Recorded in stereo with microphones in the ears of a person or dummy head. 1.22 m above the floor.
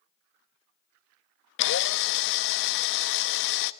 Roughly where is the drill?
Left.